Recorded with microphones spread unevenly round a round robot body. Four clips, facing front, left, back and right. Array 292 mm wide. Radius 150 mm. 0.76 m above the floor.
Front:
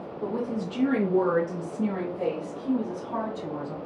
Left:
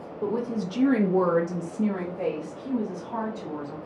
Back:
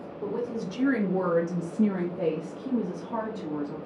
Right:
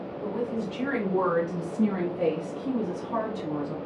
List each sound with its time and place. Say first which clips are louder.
0.2 s a woman speaking: left 3 dB, front 1 dB; 70° left, 1.0 m; by 3.8 s 135° right, 1.7 m